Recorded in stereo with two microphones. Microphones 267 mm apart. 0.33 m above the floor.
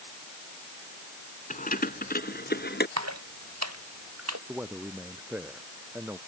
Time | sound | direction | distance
1.5 | keys jangling | 30° left (ahead or behind) | ?
3.0 | a splash | 75° right (ahead or behind) | ?
4.5 | a man speaking | 5° right (ahead or behind) | ?